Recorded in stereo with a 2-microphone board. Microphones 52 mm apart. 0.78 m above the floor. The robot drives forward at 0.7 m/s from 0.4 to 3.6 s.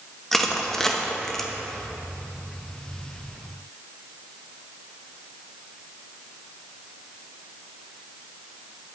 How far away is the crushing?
About 0.8 m.